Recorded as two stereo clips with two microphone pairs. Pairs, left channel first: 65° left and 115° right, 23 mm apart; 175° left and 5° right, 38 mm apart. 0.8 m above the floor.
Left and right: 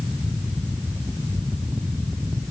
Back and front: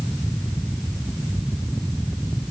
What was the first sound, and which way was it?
Only background noise.